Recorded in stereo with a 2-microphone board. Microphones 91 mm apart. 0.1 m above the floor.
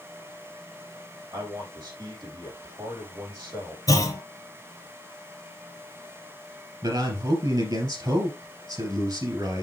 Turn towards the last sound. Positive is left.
turn(degrees=-50)  # may be behind; listen again after turning